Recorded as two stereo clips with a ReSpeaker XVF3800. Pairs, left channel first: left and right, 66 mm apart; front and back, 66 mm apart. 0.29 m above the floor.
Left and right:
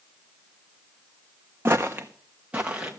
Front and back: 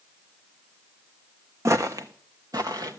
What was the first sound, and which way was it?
Footsteps, 140° right.